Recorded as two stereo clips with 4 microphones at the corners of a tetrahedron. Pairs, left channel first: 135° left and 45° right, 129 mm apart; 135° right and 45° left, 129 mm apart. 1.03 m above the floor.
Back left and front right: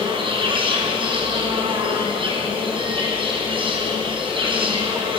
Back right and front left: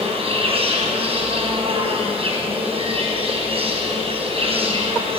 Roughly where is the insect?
Ahead.